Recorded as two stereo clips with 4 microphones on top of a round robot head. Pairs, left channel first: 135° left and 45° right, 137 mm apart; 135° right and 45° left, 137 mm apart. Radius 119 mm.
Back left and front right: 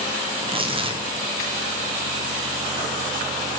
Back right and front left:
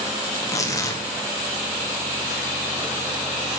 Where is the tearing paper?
75° right, 1.3 m.